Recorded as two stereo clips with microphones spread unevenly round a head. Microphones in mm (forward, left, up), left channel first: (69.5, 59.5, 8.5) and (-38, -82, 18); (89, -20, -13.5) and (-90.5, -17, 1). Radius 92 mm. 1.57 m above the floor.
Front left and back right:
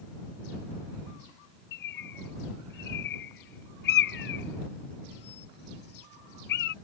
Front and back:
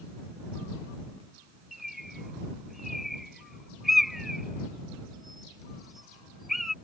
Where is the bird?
90° left.